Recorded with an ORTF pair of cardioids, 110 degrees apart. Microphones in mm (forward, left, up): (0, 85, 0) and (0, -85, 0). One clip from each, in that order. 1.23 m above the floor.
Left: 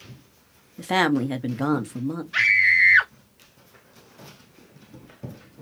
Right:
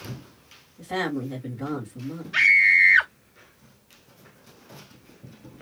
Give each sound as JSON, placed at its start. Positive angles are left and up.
{"t": 0.8, "sound": "a woman speaking", "azimuth_deg": 70, "distance_m": 1.6}
{"t": 2.3, "sound": "a scream", "azimuth_deg": 5, "distance_m": 1.1}